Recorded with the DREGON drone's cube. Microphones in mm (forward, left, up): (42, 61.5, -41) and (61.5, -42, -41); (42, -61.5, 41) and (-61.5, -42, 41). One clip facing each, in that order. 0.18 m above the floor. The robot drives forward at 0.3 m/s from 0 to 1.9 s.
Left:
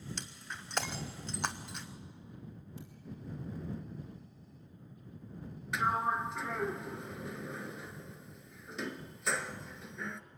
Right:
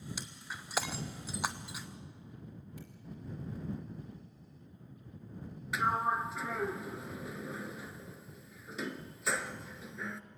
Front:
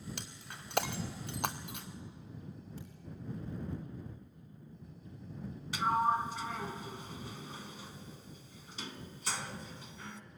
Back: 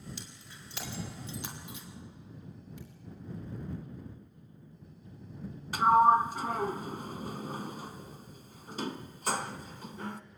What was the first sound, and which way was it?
Breaking glass, 5° left.